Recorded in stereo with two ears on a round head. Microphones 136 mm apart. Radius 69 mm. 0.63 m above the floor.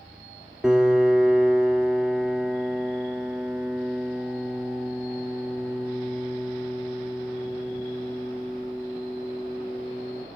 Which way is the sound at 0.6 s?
5° right (ahead or behind).